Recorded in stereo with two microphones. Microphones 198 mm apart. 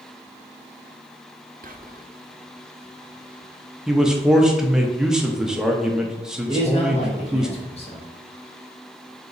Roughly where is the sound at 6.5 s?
Left.